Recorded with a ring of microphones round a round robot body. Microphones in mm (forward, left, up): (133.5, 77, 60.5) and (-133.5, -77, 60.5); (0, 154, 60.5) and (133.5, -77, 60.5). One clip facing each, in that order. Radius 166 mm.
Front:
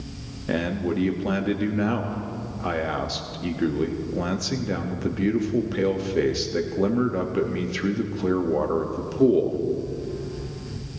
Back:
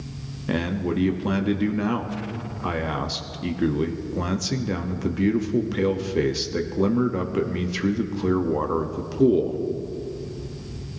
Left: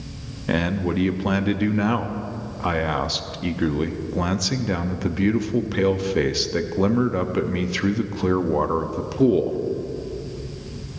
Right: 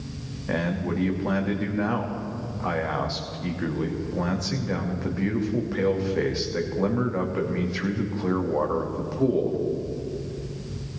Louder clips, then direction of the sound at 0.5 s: Even, left 4 dB; 135° left.